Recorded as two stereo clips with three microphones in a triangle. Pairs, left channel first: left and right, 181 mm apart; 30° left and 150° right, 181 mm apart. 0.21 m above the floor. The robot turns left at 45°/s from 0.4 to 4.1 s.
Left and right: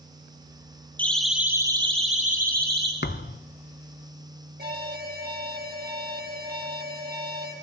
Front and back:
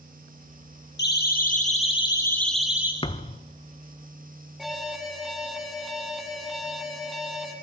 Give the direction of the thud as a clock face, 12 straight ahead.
9 o'clock.